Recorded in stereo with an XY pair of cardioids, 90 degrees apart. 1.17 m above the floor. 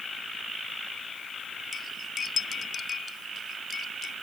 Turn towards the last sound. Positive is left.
turn(degrees=55)